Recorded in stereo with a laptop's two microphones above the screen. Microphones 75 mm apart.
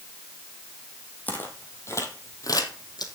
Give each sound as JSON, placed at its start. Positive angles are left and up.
{"t": 1.3, "sound": "footsteps", "side_deg": 25, "distance_m": 2.5}